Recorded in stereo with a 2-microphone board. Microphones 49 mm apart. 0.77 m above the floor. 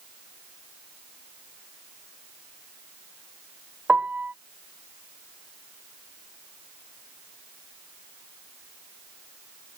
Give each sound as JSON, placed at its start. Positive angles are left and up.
{"t": 3.9, "sound": "a piano", "side_deg": -30}